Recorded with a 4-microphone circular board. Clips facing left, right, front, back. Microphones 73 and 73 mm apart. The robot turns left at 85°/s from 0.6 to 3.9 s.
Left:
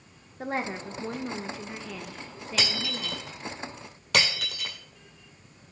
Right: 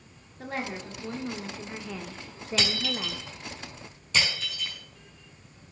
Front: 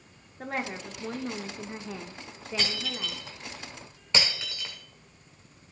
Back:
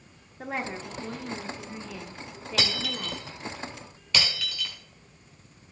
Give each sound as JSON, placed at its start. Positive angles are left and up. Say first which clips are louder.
{"t": 0.4, "sound": "a woman speaking", "louder": "left 3 dB, back 1 dB", "azimuth_deg": 95, "distance_m": 0.7}
{"t": 2.6, "sound": "breaking glass", "louder": "even, back 3 dB", "azimuth_deg": 180, "distance_m": 2.0}